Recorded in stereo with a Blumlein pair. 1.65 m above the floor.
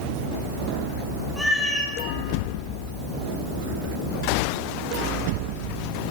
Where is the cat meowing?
Straight ahead, 3 m.